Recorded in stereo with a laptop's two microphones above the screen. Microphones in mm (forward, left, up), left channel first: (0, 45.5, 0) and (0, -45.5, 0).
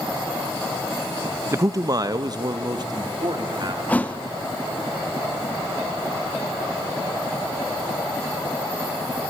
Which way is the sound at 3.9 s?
15° left (ahead or behind).